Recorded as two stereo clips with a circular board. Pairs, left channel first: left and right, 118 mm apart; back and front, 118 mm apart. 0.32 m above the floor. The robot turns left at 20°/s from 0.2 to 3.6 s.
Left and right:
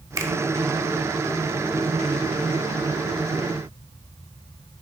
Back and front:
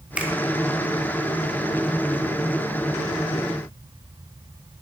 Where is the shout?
I don't hear a shout.